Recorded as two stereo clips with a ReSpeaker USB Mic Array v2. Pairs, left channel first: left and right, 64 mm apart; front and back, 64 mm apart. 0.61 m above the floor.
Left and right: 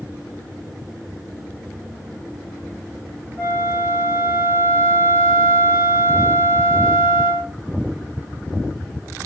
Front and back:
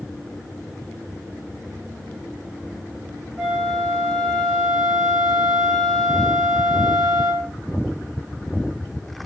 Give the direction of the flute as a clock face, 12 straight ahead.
3 o'clock.